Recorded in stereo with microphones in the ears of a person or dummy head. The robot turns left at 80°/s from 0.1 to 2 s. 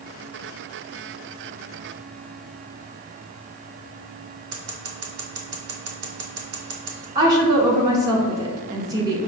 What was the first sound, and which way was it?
Scissors, 85° right.